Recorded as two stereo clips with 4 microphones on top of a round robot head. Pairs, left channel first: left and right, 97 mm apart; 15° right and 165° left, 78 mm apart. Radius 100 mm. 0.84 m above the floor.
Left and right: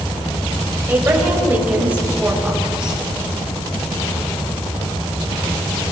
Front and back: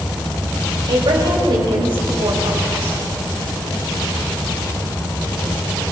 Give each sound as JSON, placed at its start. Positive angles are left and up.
{"t": 0.9, "sound": "a woman speaking", "azimuth_deg": -155, "distance_m": 4.5}